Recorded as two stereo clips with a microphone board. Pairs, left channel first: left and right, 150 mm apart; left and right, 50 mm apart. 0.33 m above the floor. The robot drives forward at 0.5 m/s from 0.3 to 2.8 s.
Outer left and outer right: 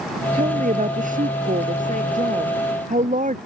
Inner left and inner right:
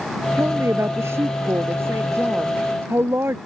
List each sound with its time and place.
0.4 s a woman speaking: 60° right (ahead or behind); by 3.4 s 55° right (ahead or behind)